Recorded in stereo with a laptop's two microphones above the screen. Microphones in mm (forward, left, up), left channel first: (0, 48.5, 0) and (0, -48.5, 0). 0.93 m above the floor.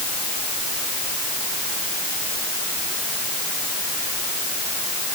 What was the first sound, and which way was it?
Only background noise.